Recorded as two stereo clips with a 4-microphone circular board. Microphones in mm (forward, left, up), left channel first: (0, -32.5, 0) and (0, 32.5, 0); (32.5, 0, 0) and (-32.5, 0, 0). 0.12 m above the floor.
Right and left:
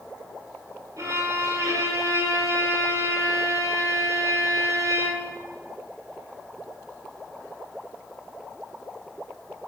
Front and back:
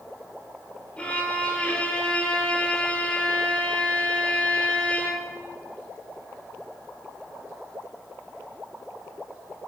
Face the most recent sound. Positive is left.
turn(degrees=70)